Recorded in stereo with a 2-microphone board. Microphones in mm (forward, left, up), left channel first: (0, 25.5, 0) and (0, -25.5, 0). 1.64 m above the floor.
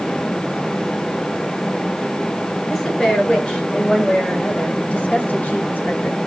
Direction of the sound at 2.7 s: 10° left (ahead or behind).